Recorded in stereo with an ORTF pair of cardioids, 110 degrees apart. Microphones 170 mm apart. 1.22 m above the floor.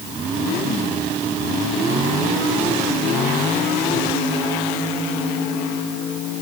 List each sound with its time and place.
Only background noise.